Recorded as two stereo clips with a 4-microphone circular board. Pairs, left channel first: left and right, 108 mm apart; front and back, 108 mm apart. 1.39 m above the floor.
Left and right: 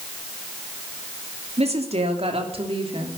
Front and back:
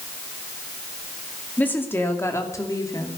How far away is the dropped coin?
No dropped coin in this recording.